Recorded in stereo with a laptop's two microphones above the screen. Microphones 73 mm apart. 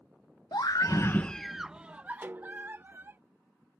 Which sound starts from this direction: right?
A snare drum, at 2.2 s.